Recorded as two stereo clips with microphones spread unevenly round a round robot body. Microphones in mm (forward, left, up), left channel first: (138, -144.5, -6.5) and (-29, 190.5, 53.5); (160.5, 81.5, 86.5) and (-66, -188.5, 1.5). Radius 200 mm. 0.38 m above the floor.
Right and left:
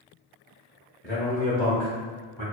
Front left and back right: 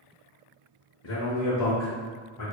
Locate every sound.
1.0 s a man speaking: 5° left, 0.9 m; by 2.4 s 85° left, 1.1 m